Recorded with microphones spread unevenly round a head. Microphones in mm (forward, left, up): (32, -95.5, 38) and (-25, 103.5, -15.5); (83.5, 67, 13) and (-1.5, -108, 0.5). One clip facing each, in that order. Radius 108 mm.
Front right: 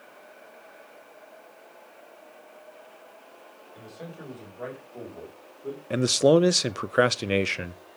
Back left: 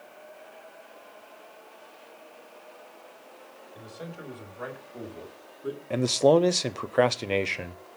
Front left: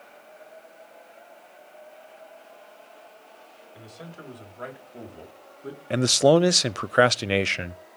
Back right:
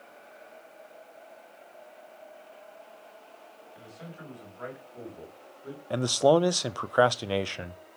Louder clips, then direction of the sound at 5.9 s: Front right 1 dB, front left 4 dB; straight ahead.